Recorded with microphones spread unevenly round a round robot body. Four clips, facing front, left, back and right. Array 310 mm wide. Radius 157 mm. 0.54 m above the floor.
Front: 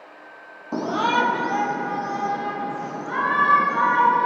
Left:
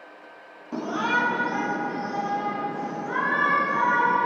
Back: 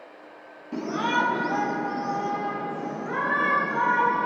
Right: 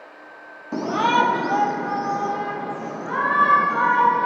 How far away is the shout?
About 0.6 m.